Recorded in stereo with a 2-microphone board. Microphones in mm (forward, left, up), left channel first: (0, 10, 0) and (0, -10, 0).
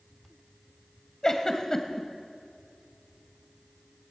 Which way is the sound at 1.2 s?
30° left (ahead or behind).